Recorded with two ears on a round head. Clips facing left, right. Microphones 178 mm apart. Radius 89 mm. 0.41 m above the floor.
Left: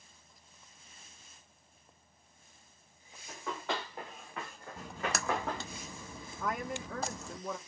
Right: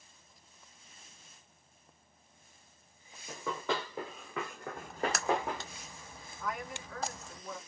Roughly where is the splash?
Left.